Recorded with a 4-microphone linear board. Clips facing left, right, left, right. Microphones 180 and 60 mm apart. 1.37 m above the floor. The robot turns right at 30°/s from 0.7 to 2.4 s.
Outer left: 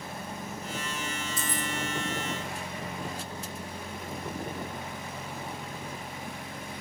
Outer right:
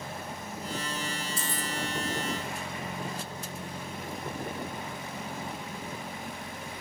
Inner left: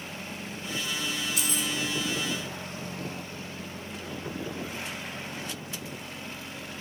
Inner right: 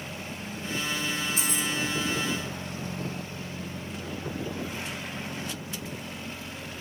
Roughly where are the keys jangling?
Right.